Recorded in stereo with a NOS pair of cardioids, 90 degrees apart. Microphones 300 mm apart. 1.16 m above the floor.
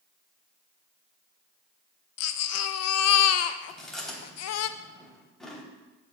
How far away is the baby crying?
About 0.6 m.